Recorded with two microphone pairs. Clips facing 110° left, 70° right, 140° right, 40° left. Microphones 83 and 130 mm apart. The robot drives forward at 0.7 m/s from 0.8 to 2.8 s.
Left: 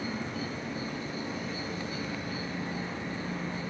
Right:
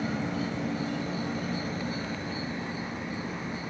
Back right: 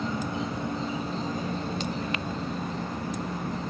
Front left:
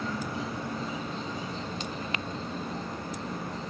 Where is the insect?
70° right, 0.9 m; by 3.7 s 140° right, 1.4 m.